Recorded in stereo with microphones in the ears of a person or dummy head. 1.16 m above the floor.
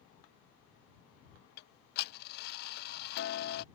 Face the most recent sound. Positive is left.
turn(degrees=50)  # may be behind; listen again after turning